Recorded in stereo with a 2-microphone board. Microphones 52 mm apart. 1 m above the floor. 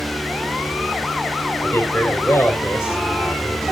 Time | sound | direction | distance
1.6 | a man speaking | 45° left (ahead or behind) | 3.5 m